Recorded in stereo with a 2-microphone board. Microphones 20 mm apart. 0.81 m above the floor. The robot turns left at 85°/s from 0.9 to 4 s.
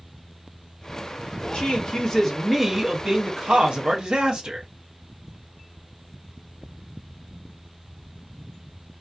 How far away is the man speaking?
About 0.8 m.